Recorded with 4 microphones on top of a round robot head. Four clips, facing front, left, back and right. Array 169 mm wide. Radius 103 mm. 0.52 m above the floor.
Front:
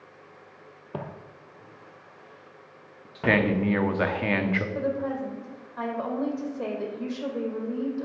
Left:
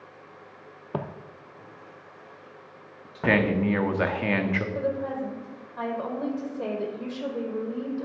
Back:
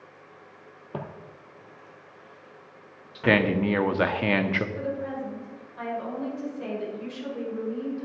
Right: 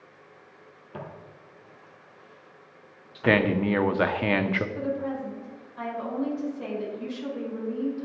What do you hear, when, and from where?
0.9 s footsteps: 90° left, 0.7 m; by 3.5 s 60° left, 2.5 m
3.1 s a man speaking: 130° right, 0.8 m
4.8 s a woman speaking: 50° left, 2 m